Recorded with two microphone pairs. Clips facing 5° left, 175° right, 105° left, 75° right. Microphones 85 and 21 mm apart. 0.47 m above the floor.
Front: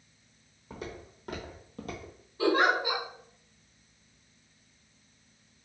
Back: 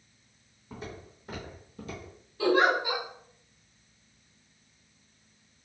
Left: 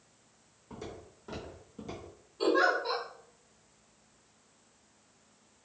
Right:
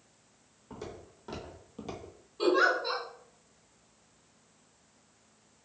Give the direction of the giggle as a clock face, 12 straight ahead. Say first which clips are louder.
Back 1 dB, right 1 dB; 1 o'clock.